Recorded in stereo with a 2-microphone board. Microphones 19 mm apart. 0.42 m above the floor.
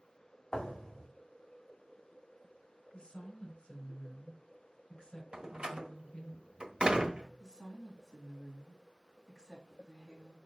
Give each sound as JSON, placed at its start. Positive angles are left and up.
{"t": 0.5, "sound": "a thud", "side_deg": 45, "distance_m": 2.5}
{"t": 2.9, "sound": "a woman speaking", "side_deg": 55, "distance_m": 3.5}
{"t": 5.3, "sound": "a door slam", "side_deg": -55, "distance_m": 1.1}
{"t": 7.4, "sound": "a woman speaking", "side_deg": 25, "distance_m": 3.0}